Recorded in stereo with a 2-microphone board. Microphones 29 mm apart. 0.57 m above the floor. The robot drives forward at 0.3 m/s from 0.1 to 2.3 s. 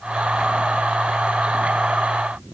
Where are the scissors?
I don't hear scissors.